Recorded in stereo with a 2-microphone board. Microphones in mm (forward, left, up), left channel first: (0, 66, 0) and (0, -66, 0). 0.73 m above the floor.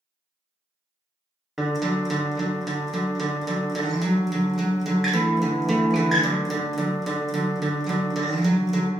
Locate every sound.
1.6 s a guitar: centre (ahead or behind), 0.6 m